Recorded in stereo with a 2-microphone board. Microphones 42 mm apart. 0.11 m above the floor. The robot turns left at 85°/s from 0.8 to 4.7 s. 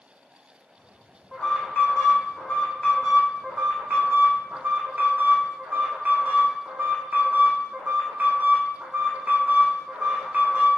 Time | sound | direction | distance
1.3 | an alarm | 165° left | 3 m